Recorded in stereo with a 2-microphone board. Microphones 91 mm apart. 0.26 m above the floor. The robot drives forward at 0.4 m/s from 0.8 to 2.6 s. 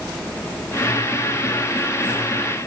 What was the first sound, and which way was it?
Only background noise.